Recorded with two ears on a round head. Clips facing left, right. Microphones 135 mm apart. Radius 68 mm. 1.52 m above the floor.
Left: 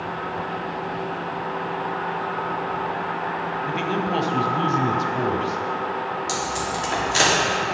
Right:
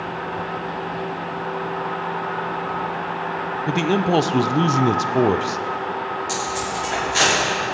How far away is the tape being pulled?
About 3.5 m.